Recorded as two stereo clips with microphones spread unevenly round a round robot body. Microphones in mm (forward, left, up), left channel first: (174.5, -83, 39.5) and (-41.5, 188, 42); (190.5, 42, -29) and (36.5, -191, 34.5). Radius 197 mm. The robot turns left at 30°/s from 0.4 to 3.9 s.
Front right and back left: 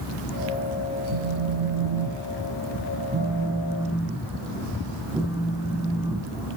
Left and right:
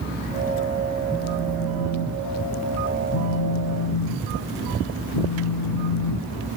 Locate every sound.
1.1 s a phone buzzing: 130° left, 3 m; by 6.5 s 45° left, 3 m